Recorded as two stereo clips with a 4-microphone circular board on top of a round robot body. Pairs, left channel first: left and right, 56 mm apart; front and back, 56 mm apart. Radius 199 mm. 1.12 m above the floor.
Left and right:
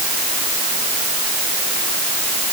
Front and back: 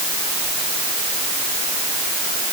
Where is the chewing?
No chewing in this recording.